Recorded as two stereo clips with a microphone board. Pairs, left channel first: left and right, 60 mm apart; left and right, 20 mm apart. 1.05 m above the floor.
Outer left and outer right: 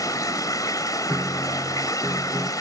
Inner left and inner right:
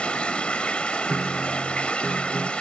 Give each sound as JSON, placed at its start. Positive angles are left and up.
{"t": 0.0, "sound": "running water", "side_deg": 90}
{"t": 1.1, "sound": "a piano", "side_deg": -40}